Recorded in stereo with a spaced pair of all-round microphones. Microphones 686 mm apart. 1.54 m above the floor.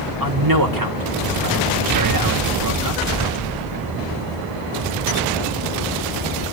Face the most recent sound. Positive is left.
turn(degrees=-30)  # may be behind; listen again after turning